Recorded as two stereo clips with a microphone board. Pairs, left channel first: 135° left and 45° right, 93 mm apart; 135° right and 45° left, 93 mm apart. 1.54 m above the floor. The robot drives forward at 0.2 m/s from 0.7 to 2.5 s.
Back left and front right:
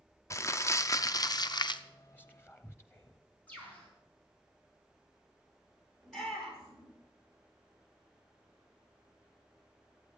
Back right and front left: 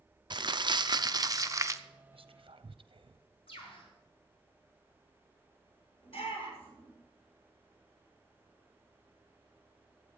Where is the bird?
150° right, 4.5 m.